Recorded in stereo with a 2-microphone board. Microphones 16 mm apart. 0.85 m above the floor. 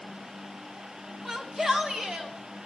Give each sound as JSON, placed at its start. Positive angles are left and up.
{"t": 1.2, "sound": "a shout", "side_deg": -25, "distance_m": 1.9}